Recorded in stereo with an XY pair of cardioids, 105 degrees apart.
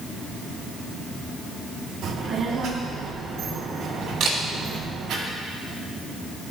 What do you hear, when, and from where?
2.0 s a child speaking: 70° right, 1.8 m
4.2 s a camera shutter: 65° right, 3 m